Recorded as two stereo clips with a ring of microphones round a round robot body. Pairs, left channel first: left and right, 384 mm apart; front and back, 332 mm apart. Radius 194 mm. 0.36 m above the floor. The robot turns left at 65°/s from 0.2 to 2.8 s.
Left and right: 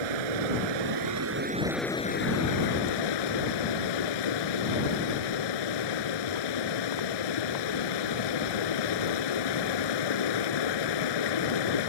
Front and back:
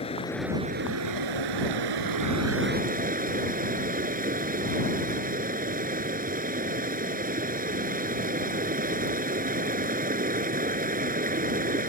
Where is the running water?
75° right; by 11.9 s 115° left.